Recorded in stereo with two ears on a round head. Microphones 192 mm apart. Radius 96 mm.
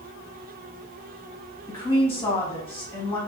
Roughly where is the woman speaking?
Centre.